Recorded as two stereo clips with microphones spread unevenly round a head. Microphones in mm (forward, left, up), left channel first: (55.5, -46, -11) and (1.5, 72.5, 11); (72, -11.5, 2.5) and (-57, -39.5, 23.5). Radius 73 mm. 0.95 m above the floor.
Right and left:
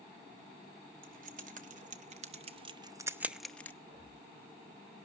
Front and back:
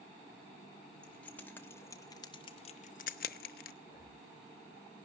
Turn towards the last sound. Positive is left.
turn(degrees=70)